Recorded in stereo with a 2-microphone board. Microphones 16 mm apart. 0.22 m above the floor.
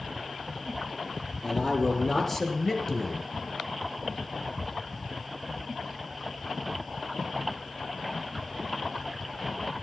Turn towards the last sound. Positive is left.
turn(degrees=20)  # may be behind; listen again after turning